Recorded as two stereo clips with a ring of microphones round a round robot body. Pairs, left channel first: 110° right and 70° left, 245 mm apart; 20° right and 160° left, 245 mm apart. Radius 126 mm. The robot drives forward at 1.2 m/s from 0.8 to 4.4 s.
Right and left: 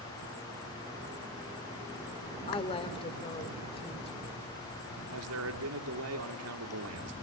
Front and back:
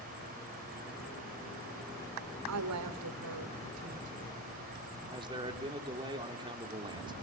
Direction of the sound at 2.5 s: Straight behind.